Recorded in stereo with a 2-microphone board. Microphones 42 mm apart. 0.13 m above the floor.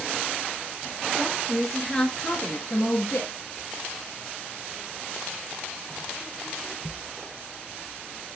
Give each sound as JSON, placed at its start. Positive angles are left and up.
{"t": 1.1, "sound": "a woman speaking", "side_deg": -20, "distance_m": 2.5}